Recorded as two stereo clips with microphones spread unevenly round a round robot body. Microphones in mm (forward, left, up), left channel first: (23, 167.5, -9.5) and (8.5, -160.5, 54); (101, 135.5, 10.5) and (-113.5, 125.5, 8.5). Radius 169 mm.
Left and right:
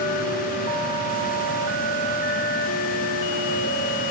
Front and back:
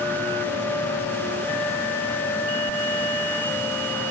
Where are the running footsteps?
I don't hear running footsteps.